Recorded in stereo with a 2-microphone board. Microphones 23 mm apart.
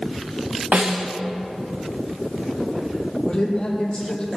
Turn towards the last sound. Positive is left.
turn(degrees=30)  # may be behind; listen again after turning